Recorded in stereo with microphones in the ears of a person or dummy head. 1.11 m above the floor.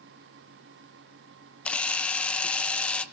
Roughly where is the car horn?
I don't hear a car horn.